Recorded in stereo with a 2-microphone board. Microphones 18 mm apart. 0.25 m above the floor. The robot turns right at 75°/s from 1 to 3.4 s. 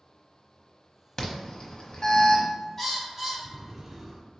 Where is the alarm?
35° left (ahead or behind), 0.9 m; by 2.5 s 20° left (ahead or behind), 0.9 m.